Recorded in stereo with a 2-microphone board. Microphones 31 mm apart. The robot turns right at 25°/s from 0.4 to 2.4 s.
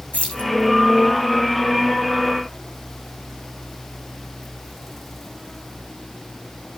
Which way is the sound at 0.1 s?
45° left (ahead or behind).